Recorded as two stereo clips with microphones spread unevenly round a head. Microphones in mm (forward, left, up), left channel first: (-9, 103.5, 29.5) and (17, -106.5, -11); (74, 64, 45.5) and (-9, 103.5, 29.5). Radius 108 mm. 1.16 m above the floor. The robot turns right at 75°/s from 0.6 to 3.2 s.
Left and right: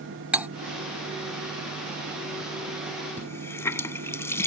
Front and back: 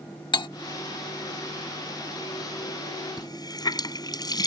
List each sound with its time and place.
0.3 s cutlery clinking: 5° left
3.2 s a running tap: 15° left; by 4.5 s 20° left